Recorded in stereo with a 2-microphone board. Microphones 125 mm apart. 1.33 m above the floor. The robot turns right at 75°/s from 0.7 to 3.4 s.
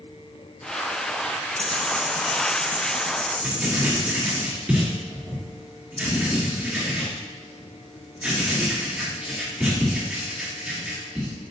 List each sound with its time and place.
1.6 s ticking: 10° left (ahead or behind), 1.4 m; by 4.4 s 55° right (ahead or behind), 1.4 m
3.4 s writing: 15° right (ahead or behind), 2.5 m